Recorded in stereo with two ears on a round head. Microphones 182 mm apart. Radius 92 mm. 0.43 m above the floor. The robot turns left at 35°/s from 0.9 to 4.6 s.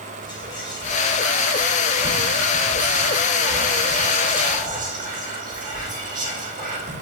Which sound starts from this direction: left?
Whispering, at 0.2 s.